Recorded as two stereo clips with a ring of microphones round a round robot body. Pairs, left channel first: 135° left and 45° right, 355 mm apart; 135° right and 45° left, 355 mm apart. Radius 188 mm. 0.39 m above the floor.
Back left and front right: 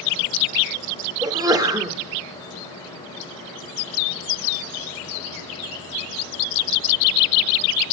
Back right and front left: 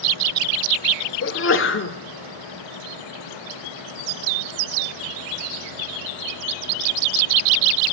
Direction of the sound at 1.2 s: 115° right.